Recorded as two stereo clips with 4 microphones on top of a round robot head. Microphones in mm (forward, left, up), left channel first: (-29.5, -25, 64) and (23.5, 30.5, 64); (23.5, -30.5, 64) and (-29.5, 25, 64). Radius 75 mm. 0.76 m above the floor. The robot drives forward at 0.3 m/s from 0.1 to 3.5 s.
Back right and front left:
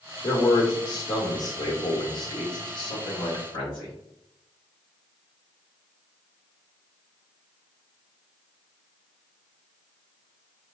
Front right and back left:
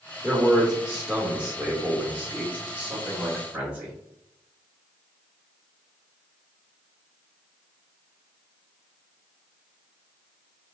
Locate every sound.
0.2 s a man speaking: 125° right, 1.0 m; by 3.9 s 155° right, 1.6 m